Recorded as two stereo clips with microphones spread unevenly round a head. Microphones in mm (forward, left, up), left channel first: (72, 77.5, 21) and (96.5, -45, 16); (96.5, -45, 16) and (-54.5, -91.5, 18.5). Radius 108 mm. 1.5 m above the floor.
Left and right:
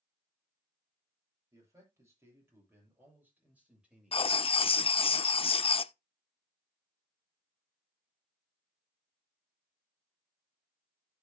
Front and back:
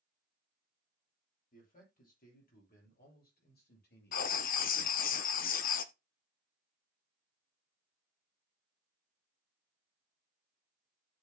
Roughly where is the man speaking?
Ahead.